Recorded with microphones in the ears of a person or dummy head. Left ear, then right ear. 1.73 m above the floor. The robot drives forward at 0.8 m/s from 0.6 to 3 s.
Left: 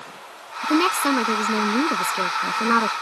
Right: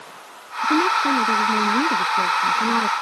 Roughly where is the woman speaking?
Left.